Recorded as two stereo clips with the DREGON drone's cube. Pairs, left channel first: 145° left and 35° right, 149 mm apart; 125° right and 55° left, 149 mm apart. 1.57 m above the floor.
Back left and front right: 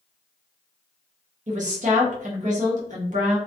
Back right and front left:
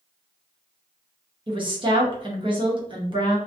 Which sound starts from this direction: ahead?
A woman speaking, at 1.5 s.